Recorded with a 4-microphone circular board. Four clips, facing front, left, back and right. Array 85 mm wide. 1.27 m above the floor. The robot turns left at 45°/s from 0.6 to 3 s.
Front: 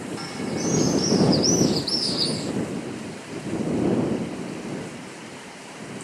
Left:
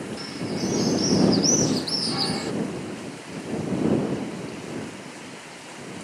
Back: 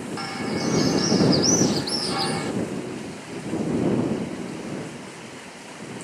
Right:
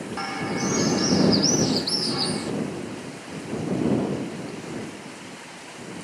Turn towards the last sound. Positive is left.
turn(degrees=140)